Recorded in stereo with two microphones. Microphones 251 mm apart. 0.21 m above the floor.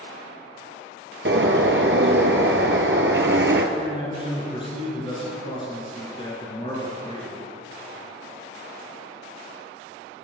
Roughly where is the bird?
Right.